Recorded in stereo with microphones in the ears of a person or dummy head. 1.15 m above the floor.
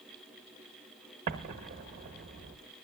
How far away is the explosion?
About 0.9 m.